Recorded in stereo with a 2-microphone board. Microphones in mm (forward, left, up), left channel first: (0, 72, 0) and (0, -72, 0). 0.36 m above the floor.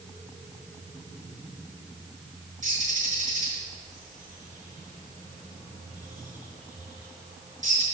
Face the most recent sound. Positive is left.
turn(degrees=-65)  # may be behind; listen again after turning